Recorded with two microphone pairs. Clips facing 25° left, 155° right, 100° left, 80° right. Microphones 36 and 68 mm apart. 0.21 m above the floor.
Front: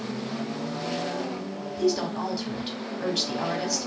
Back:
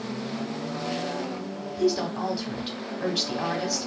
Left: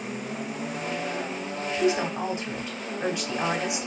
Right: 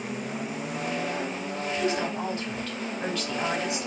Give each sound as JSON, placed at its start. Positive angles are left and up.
{"t": 1.8, "sound": "a woman speaking", "azimuth_deg": 135, "distance_m": 0.9}